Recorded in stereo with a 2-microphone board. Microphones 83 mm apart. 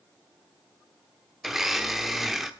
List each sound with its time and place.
1.4 s a blender: centre (ahead or behind), 1.2 m